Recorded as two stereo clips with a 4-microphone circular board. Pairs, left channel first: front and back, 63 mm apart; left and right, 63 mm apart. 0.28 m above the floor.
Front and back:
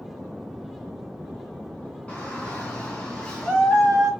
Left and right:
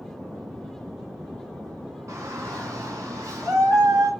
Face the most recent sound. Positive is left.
turn(degrees=-80)